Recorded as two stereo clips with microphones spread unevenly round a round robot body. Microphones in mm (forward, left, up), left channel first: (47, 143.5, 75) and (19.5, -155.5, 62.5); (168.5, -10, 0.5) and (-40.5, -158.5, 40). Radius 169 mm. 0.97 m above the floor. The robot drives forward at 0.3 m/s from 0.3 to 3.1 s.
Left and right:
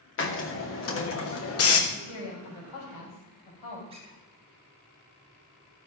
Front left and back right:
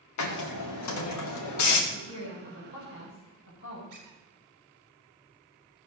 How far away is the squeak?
About 3.5 m.